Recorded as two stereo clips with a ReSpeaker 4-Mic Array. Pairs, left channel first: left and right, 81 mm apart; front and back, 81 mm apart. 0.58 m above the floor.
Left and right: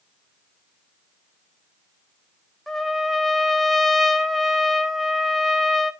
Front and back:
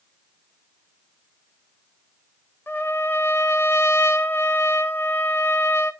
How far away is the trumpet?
About 1.0 m.